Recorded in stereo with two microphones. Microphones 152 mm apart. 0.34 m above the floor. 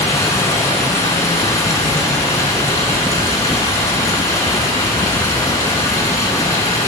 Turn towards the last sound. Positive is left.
turn(degrees=20)  # may be behind; listen again after turning